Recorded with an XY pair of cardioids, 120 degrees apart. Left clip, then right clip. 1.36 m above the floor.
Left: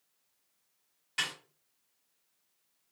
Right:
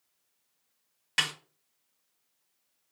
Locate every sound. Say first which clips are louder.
1.2 s a snare drum: right 5 dB; 65° right, 1.4 m